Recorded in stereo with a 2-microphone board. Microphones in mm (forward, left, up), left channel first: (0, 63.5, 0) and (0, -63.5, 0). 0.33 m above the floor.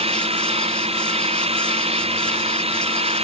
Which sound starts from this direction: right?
An engine running, at 0.0 s.